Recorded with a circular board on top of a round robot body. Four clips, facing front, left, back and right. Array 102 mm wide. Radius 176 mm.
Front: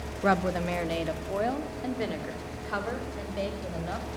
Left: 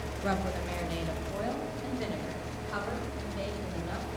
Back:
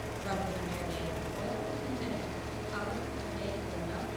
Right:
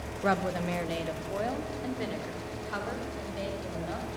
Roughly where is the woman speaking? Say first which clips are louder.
Right 4 dB, front 11 dB; ahead right.